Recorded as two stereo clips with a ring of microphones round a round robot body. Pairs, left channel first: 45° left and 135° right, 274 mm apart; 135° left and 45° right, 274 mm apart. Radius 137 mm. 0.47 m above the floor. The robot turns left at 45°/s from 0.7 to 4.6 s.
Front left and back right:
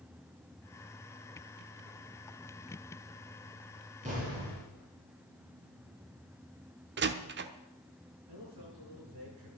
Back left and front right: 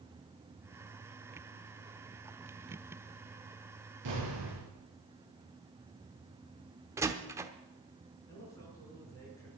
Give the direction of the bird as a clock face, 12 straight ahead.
I don't hear a bird.